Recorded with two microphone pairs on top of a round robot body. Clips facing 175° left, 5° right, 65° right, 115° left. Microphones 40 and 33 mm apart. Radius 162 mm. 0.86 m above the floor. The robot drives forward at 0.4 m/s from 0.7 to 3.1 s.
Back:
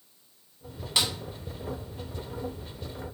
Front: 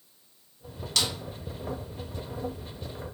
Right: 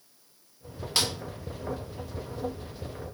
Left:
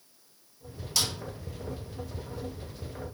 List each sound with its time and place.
1.0 s a snare drum: 110° right, 0.6 m; by 1.1 s 120° right, 0.7 m